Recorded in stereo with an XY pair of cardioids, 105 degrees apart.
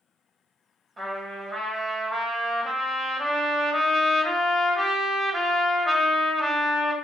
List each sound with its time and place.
1.0 s a trumpet: 30° right, 1.3 m